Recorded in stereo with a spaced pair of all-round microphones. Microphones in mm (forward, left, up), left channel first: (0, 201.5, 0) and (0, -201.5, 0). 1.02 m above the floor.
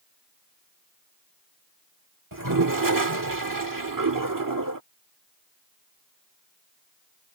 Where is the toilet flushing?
50° right (ahead or behind).